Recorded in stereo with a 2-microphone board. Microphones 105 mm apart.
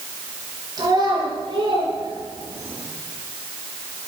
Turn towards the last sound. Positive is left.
turn(degrees=-55)  # may be behind; listen again after turning